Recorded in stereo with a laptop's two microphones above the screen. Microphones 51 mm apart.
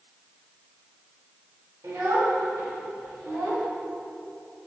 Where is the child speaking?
75° right (ahead or behind), 1.8 m; by 3.7 s 90° right, 3 m.